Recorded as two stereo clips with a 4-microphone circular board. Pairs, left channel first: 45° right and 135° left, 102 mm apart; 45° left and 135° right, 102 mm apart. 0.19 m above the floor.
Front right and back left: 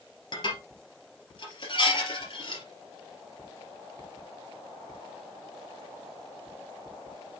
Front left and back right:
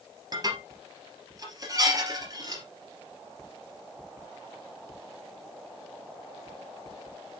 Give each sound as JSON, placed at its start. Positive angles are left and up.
{"t": 0.3, "sound": "dishes clattering", "azimuth_deg": -85, "distance_m": 3.0}